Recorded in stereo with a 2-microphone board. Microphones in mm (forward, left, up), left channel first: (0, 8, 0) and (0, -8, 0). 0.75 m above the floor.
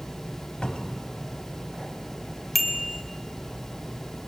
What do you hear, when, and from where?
0.6 s a cupboard door: 80° left, 2.5 m
2.5 s a bicycle bell: 5° right (ahead or behind), 2.5 m